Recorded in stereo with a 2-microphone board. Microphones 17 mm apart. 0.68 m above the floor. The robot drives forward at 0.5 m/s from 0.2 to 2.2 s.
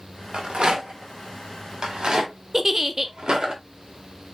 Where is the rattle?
75° right (ahead or behind), 1.4 m; by 3.5 s 50° right (ahead or behind), 1.7 m.